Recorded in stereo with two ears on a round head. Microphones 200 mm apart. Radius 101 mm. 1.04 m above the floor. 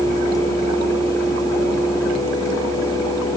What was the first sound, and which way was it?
Only background noise.